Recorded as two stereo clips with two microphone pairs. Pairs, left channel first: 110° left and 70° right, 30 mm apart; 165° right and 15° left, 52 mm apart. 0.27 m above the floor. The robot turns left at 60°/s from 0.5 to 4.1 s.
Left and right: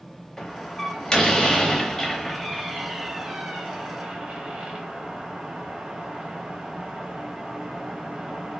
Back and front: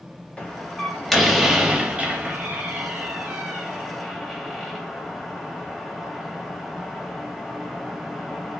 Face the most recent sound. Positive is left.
turn(degrees=-70)